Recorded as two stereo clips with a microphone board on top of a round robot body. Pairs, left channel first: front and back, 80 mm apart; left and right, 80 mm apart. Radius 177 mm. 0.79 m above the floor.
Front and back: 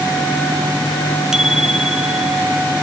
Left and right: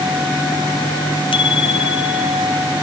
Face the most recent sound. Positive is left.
turn(degrees=95)